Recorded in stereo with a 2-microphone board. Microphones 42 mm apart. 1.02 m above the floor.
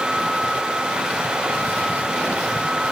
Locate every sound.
Only background noise.